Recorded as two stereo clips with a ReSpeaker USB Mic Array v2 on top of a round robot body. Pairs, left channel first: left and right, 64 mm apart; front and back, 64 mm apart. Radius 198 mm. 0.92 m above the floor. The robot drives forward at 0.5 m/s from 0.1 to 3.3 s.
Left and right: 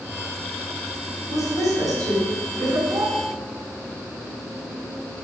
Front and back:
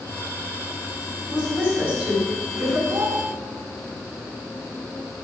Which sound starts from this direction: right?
A woman speaking, at 1.3 s.